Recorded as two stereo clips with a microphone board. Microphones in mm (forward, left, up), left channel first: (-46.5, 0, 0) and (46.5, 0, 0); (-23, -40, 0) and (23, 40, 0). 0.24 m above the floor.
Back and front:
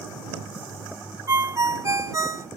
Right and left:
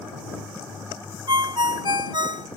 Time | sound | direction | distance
1.3 | a ringtone | 45° left | ?